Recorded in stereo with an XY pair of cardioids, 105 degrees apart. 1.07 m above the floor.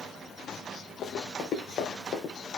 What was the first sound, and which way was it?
Running footsteps, 65° left.